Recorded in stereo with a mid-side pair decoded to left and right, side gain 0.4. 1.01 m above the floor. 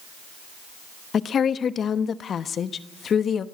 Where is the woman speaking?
60° left, 1.0 m.